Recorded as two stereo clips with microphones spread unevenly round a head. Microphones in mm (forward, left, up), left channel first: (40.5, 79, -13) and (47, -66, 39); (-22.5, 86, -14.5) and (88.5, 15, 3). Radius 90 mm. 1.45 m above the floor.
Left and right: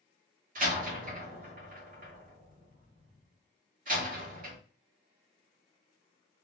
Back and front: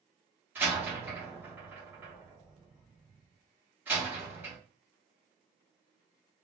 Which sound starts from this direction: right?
A door slam, at 0.6 s.